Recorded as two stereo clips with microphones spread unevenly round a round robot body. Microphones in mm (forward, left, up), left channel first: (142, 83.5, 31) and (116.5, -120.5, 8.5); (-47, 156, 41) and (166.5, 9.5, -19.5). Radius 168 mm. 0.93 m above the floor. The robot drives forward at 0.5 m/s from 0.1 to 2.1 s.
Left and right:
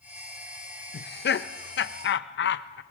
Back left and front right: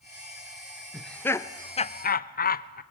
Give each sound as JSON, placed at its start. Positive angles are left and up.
{"t": 0.9, "sound": "laughter", "azimuth_deg": 45, "distance_m": 1.1}